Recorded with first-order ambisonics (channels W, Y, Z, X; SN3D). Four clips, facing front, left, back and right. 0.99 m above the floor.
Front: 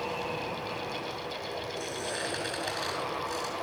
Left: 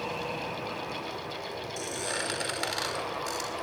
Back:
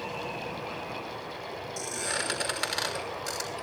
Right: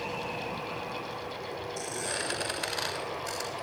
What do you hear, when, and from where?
1.8 s a squeak: 150° left, 5.5 m